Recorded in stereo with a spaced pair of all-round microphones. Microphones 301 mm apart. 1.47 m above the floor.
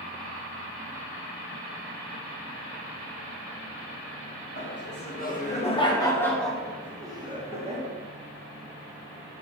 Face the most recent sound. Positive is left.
turn(degrees=-25)  # may be behind; listen again after turning